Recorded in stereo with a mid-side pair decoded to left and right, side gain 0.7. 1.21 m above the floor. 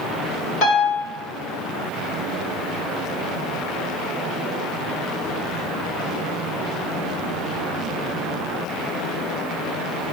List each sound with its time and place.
0.6 s a piano: 60° left, 3 m